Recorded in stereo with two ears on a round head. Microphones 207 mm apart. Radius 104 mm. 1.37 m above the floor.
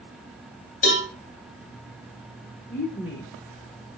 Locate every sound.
0.8 s a cowbell: 35° left (ahead or behind), 2.5 m
2.7 s a woman speaking: 25° left (ahead or behind), 2.5 m